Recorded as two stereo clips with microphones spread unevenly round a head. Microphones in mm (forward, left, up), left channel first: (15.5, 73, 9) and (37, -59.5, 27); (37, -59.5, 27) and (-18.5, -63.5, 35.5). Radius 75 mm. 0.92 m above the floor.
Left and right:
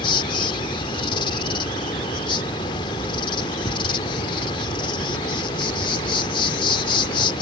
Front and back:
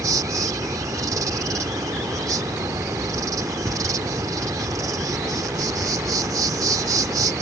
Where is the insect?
160° left.